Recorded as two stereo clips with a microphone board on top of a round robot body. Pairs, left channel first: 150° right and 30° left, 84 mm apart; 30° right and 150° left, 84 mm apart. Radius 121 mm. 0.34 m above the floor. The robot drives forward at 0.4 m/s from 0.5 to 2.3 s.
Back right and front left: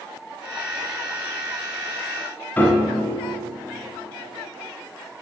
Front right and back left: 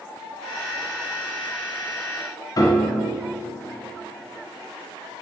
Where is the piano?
80° right, 0.8 m.